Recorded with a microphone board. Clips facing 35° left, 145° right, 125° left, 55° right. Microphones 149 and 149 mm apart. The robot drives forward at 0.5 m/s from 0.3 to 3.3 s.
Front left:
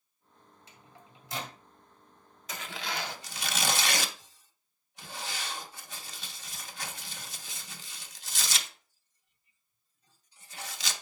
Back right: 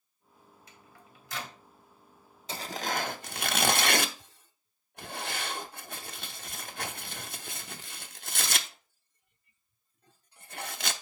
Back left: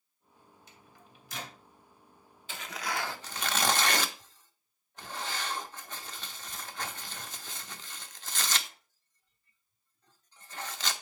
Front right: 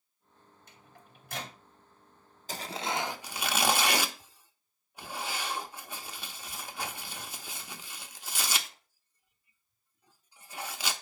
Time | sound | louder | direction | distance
0.7 | a microwave | front left 3 dB, front right 3 dB | 30° right | 2.5 m
2.5 | tearing paper | back right 5 dB, front right 3 dB | 95° right | 0.5 m